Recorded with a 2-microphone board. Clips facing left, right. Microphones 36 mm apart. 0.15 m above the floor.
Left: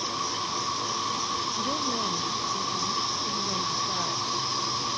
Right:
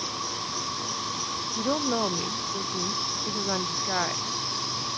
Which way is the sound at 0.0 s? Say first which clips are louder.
Left 3 dB; 15° left (ahead or behind).